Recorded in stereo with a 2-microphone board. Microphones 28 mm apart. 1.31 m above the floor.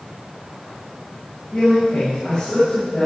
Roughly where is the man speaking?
Left.